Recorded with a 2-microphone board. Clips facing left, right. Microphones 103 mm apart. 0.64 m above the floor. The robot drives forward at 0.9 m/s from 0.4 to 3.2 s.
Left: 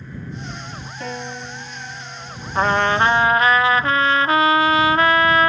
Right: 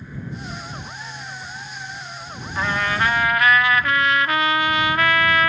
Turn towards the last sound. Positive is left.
turn(degrees=30)  # may be behind; listen again after turning